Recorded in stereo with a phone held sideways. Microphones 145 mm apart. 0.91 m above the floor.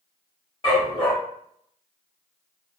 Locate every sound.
0.6 s a dog barking: 35° left (ahead or behind), 1.6 m